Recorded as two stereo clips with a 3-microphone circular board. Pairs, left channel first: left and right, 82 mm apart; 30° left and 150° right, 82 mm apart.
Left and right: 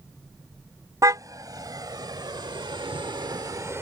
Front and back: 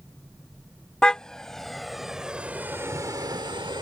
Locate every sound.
1.0 s a car horn: 50° right; by 3.8 s 145° right